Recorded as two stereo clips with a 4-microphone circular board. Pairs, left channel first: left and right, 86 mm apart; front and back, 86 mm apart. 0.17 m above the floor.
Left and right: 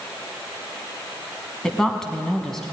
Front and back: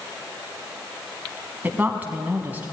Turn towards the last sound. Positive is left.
turn(degrees=165)